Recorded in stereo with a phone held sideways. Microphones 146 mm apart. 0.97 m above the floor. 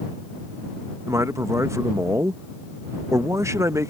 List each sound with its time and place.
1.1 s a man speaking: 20° right (ahead or behind)